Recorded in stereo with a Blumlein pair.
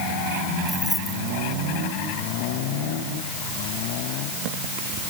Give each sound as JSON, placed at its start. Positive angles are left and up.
{"t": 0.7, "sound": "keys jangling", "azimuth_deg": 10}